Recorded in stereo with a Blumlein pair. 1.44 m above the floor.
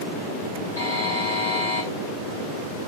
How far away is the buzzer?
About 7.5 m.